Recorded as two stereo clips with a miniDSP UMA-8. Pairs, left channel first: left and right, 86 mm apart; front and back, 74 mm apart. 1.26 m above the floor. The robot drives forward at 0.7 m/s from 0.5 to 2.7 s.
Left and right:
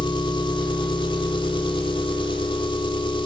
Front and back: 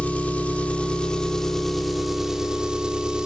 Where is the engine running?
70° left, 3 m; by 3.3 s 100° left, 3 m.